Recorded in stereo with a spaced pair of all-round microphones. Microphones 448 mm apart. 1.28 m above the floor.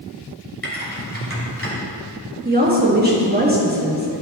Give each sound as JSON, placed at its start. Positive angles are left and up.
{"t": 0.6, "sound": "typing on a keyboard", "side_deg": 30, "distance_m": 2.0}
{"t": 2.5, "sound": "a woman speaking", "side_deg": -20, "distance_m": 1.8}